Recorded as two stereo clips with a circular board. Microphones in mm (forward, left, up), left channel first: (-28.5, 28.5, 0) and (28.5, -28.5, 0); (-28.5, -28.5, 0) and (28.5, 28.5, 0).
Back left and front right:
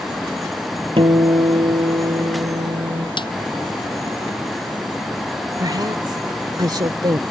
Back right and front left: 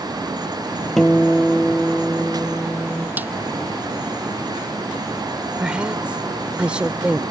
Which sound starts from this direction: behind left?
A snare drum, at 3.2 s.